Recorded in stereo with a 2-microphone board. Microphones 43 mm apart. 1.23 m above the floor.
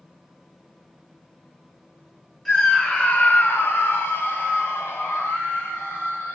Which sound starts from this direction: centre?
A scream, at 2.5 s.